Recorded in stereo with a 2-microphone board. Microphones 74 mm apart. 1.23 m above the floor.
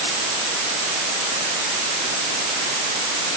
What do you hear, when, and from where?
Only background noise.